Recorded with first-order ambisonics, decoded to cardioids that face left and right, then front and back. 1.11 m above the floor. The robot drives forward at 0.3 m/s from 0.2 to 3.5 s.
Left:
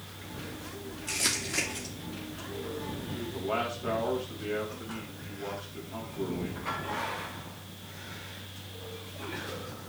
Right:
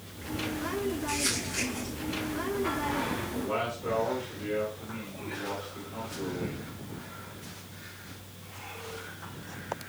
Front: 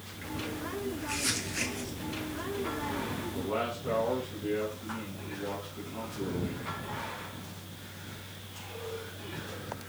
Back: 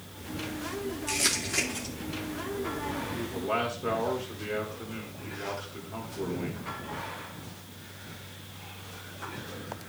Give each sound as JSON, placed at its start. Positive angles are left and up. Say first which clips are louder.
{"t": 1.1, "sound": "crumpling", "louder": "even, back 6 dB", "azimuth_deg": 155, "distance_m": 2.5}
{"t": 3.1, "sound": "a man speaking", "louder": "right 1 dB, back 6 dB", "azimuth_deg": 175, "distance_m": 4.0}